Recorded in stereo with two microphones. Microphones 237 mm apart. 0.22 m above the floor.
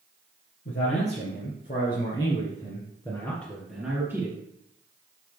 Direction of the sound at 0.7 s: 55° left (ahead or behind).